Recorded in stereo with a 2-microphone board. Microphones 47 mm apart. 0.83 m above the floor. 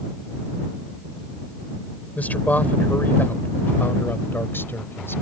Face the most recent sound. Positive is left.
turn(degrees=55)  # may be behind; listen again after turning